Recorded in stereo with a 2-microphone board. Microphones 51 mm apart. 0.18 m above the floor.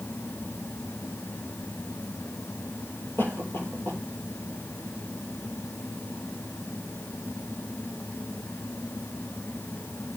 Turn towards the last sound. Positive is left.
turn(degrees=45)  # may be behind; listen again after turning